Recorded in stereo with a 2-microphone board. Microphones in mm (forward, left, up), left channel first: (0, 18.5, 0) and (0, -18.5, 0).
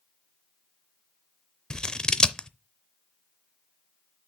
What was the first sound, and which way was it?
Scissors, 20° left (ahead or behind).